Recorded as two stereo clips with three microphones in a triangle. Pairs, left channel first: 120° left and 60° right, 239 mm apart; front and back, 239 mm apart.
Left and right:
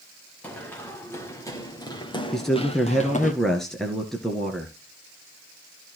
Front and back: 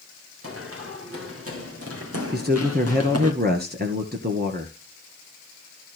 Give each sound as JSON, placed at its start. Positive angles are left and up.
{"t": 0.4, "sound": "running footsteps", "azimuth_deg": -155, "distance_m": 4.0}
{"t": 2.3, "sound": "a man speaking", "azimuth_deg": -150, "distance_m": 1.8}